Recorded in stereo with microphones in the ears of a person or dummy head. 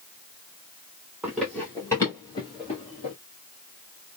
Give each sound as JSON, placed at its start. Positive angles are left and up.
{"t": 1.2, "sound": "running footsteps", "side_deg": -5, "distance_m": 1.3}